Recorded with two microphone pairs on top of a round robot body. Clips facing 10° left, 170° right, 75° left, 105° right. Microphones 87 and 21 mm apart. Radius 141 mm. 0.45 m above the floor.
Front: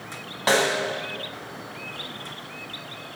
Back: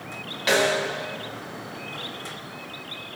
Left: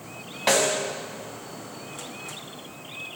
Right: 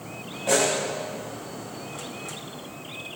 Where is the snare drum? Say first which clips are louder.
Even, left 1 dB; 65° left, 2.5 m.